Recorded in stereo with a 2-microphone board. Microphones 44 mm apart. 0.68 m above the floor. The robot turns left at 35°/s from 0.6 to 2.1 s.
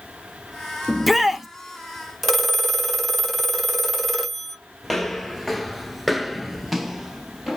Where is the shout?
5° left (ahead or behind), 0.6 m; by 1.5 s 5° right (ahead or behind), 0.6 m.